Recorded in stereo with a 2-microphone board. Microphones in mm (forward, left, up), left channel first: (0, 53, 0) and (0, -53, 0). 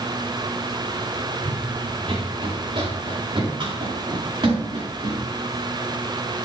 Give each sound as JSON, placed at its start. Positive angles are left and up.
{"t": 1.4, "sound": "running footsteps", "side_deg": -55, "distance_m": 2.0}